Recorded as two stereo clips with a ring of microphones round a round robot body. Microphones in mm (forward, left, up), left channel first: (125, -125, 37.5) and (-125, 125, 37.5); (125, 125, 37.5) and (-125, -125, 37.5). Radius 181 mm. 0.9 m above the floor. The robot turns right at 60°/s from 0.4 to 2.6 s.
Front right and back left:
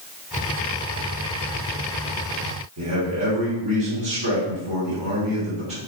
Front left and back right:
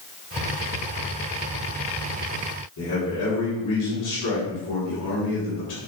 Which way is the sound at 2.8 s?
90° left.